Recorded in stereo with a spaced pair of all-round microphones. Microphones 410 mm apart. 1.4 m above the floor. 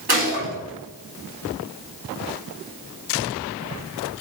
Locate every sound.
0.1 s a gunshot: 65° right (ahead or behind), 2.5 m